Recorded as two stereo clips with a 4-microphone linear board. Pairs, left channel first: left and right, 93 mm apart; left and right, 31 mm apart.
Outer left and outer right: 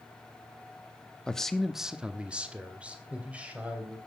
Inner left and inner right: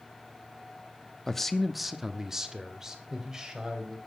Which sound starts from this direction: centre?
A man speaking, at 1.3 s.